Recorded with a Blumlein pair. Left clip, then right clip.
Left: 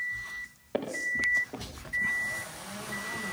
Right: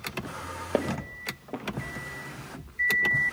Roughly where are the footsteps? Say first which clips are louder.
Left 1 dB; ahead right.